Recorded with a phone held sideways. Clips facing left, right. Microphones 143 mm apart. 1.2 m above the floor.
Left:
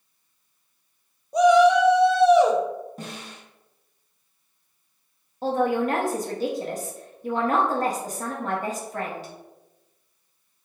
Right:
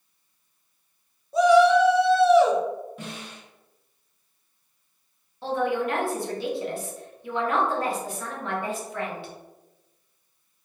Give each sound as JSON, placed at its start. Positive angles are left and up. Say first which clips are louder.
{"t": 1.3, "sound": "a shout", "louder": "left 1 dB", "side_deg": 20, "distance_m": 0.5}
{"t": 3.0, "sound": "a snare drum", "louder": "even", "side_deg": 40, "distance_m": 0.8}
{"t": 5.4, "sound": "a man speaking", "louder": "left 3 dB", "side_deg": 40, "distance_m": 0.8}